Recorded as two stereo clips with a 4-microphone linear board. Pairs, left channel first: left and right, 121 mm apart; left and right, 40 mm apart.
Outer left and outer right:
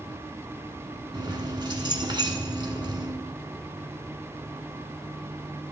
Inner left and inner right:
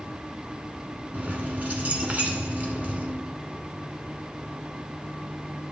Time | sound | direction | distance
1.1 | keys jangling | 40° right (ahead or behind) | 1.4 m